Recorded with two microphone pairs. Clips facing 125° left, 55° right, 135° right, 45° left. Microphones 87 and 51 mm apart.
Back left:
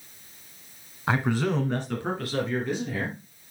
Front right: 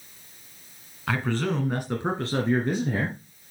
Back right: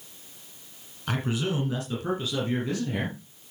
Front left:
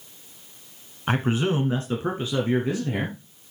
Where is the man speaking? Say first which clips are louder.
Back left 2 dB, front left 5 dB; 75° left, 1.8 m; by 3.2 s 20° right, 3 m.